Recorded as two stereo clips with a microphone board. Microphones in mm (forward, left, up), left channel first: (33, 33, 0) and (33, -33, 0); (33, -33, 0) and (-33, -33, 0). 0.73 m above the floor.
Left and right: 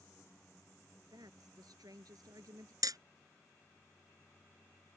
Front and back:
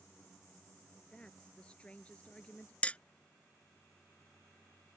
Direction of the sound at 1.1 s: 75° right.